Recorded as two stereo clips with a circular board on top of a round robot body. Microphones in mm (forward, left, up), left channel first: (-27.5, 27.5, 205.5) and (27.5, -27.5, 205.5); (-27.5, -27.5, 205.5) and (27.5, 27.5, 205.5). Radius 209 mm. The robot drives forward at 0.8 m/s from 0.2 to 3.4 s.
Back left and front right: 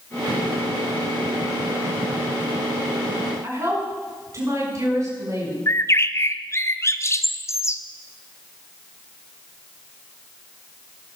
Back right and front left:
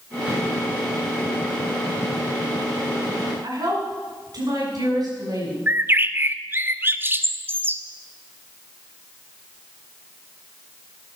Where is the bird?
95° left, 1.0 m.